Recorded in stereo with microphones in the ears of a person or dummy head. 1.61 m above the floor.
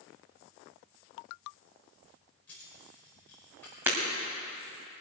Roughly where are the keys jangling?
Centre.